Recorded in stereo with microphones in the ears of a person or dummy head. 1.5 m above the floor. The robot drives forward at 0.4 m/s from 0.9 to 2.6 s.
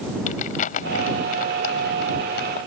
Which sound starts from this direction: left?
Crumpling, at 0.3 s.